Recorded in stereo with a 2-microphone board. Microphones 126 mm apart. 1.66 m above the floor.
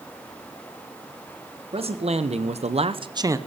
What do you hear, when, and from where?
1.7 s a man speaking: 55° right (ahead or behind), 1.3 m; by 3.4 s 25° right (ahead or behind), 0.7 m